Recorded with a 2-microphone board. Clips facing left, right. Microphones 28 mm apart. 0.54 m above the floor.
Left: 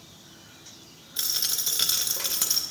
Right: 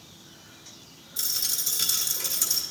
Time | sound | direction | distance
1.2 | a dropped coin | 40° left (ahead or behind) | 0.6 m